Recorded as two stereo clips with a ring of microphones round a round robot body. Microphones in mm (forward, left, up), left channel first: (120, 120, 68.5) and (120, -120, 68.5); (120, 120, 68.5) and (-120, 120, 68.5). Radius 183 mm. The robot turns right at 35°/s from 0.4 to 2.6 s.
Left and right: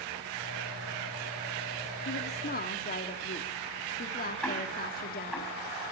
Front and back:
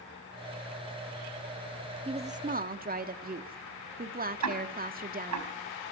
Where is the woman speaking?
115° left, 1.6 m; by 5.4 s 135° left, 1.6 m.